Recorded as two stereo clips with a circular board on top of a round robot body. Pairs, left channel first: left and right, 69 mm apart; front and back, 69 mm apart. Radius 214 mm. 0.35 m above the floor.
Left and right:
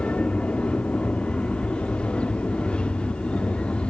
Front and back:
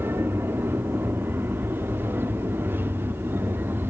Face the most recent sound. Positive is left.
turn(degrees=155)